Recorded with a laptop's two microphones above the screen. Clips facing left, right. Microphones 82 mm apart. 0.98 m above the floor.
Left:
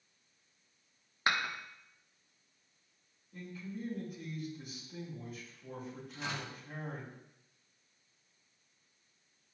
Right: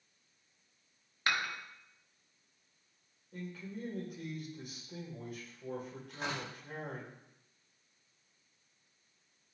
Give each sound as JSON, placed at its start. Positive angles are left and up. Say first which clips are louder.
{"t": 1.3, "sound": "dishes clattering", "louder": "left 2 dB", "side_deg": 25, "distance_m": 1.0}
{"t": 3.3, "sound": "a man speaking", "louder": "even", "side_deg": -75, "distance_m": 3.5}
{"t": 6.1, "sound": "tearing paper", "louder": "right 2 dB", "side_deg": -65, "distance_m": 2.5}